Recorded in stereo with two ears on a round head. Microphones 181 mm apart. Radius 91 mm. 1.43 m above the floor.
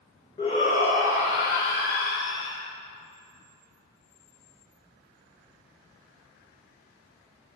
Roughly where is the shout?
Left.